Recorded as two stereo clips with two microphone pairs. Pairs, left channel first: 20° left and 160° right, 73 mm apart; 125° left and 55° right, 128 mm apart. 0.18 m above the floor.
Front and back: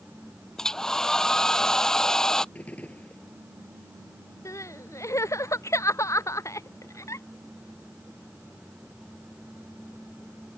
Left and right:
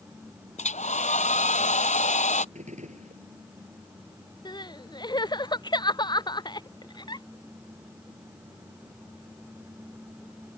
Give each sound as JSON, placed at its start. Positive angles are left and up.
{"t": 0.6, "sound": "a hair dryer", "azimuth_deg": 100}
{"t": 2.5, "sound": "a gunshot", "azimuth_deg": -50}
{"t": 4.5, "sound": "crying", "azimuth_deg": 65}